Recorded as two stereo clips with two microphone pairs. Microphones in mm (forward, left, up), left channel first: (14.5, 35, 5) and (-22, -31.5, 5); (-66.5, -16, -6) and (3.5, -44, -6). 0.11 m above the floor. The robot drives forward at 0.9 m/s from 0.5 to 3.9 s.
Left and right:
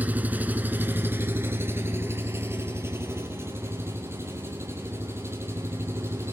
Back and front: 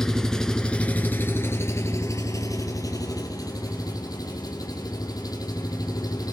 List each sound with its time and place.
0.0 s an engine running: 135° right, 1.5 m; by 6.3 s 175° right, 4 m